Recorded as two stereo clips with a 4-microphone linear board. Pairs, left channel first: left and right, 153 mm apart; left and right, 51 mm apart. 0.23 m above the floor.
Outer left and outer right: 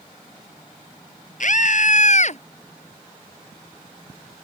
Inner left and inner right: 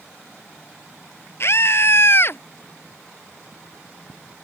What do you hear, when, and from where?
1.4 s a scream: 55° left (ahead or behind); by 2.4 s 50° left (ahead or behind)